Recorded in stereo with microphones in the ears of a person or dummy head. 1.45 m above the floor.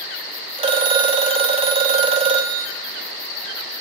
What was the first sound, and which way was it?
A phone ringing, 30° right (ahead or behind).